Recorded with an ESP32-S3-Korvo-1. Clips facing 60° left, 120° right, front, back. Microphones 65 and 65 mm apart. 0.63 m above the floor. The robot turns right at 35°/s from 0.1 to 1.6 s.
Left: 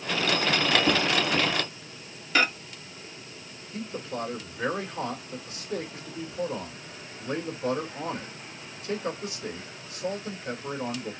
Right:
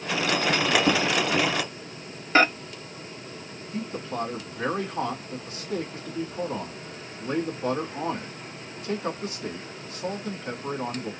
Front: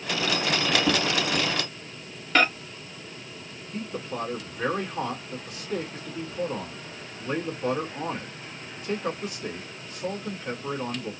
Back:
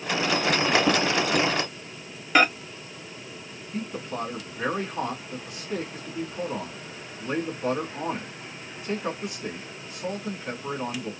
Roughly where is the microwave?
Right.